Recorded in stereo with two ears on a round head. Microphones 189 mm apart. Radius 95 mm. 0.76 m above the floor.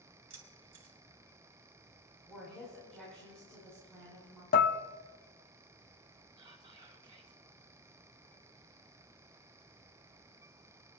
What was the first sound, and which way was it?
Keys jangling, 40° right (ahead or behind).